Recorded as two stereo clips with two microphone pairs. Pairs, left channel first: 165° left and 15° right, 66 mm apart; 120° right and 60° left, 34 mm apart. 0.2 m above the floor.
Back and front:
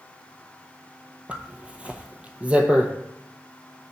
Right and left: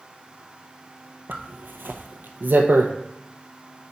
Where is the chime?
No chime in this recording.